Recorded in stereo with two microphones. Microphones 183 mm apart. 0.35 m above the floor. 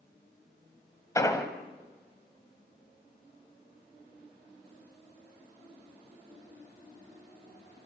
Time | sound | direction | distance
1.1 | an explosion | 20° left (ahead or behind) | 1.6 m